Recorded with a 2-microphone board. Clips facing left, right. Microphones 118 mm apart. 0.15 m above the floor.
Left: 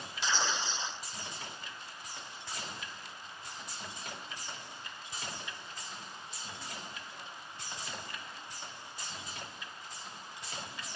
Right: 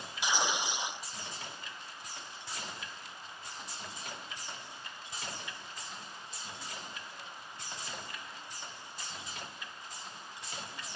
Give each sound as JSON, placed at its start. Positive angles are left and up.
{"t": 0.2, "sound": "tearing paper", "side_deg": -15}